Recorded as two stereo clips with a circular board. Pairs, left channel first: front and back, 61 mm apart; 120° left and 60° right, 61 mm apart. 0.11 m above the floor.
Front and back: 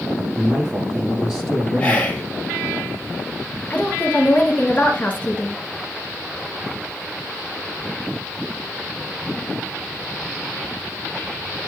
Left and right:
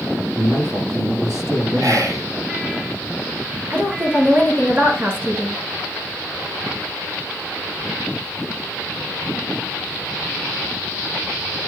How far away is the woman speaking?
About 1.9 m.